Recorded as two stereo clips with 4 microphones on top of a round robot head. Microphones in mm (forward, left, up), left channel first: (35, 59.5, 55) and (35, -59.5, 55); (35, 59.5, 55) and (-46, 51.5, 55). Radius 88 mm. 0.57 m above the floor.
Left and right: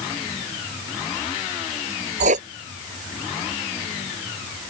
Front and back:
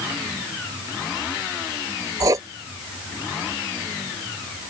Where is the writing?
115° right.